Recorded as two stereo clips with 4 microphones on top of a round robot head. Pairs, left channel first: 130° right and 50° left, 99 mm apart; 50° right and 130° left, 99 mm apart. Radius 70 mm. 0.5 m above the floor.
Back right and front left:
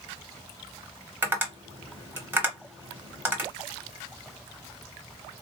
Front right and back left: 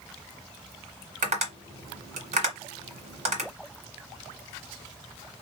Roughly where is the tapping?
Behind left.